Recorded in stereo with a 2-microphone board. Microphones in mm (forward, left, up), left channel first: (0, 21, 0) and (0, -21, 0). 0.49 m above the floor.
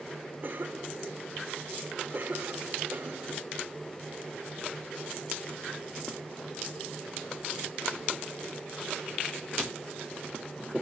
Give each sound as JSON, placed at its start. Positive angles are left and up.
{"t": 0.4, "sound": "a cough", "side_deg": -50, "distance_m": 1.2}